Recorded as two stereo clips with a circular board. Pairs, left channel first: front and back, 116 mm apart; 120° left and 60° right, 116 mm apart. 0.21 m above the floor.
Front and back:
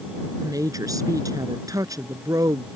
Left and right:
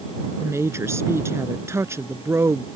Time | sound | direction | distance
0.4 | a woman speaking | 125° right | ?